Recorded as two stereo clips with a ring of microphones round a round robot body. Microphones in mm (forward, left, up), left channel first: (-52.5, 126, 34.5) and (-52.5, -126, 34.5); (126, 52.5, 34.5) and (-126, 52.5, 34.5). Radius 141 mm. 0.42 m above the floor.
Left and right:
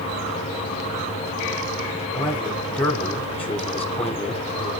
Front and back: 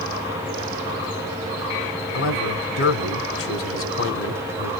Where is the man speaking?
5° left, 2 m.